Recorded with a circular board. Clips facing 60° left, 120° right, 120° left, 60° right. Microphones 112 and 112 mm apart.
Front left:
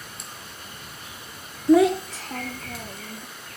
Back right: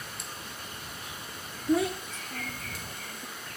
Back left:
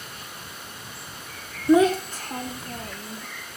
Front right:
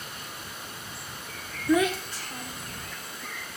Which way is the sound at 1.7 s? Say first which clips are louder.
Front left 10 dB, back left 6 dB; 55° left.